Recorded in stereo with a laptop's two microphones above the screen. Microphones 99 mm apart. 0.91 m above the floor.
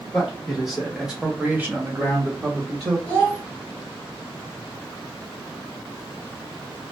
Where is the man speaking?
Centre (ahead or behind), 1.8 m; by 3.0 s 25° right (ahead or behind), 1.4 m.